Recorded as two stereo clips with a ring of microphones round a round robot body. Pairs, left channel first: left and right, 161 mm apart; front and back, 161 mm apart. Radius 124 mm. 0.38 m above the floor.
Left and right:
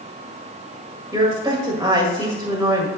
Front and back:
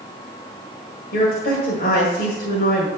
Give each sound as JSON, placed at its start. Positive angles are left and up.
{"t": 1.1, "sound": "a woman speaking", "azimuth_deg": -20, "distance_m": 1.9}